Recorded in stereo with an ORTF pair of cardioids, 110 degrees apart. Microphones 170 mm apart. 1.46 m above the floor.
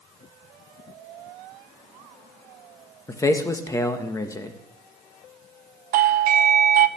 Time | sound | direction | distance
3.1 | a man speaking | 20° left | 1.6 m
5.9 | a doorbell | 55° right | 0.7 m